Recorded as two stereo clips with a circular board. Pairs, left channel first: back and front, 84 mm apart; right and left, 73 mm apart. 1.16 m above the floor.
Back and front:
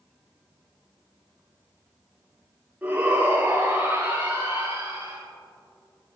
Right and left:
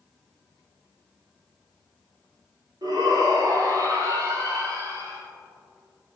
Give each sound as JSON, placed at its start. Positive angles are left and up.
{"t": 2.8, "sound": "a shout", "azimuth_deg": 70, "distance_m": 2.0}